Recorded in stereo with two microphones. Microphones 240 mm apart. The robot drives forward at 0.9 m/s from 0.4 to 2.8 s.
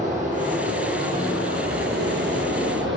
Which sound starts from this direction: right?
Running water, at 0.0 s.